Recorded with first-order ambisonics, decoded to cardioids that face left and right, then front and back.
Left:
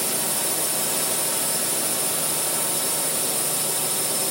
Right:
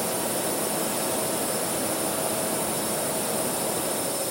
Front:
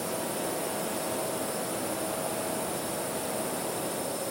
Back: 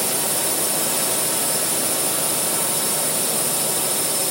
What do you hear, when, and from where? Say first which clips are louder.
0.0 s a drone: even, back 8 dB; 155° left